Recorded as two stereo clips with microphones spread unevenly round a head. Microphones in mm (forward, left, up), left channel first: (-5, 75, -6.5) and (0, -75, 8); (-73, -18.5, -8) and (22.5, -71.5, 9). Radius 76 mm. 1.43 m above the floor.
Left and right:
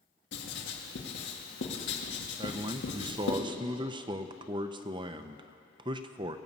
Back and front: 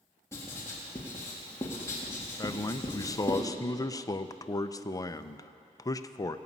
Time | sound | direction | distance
0.3 | writing | 75° left | 1.9 m
2.4 | a man speaking | 145° right | 0.7 m